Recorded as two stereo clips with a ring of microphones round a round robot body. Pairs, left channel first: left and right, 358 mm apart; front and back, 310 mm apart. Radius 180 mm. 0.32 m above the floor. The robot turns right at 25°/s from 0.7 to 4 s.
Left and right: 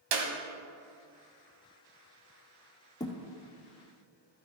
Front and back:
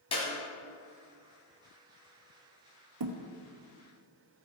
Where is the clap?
75° right, 1.6 m.